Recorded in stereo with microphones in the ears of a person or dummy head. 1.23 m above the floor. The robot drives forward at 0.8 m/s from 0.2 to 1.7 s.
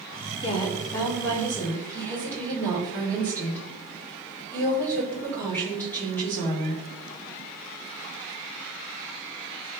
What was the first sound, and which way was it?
A woman speaking, 30° left (ahead or behind).